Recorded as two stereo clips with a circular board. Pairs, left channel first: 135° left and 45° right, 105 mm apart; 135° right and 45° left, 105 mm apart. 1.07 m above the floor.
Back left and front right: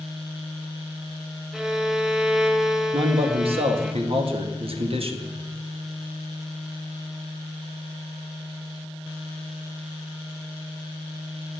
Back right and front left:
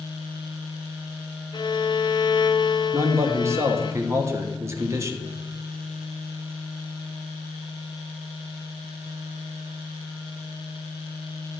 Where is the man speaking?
15° right, 1.4 m.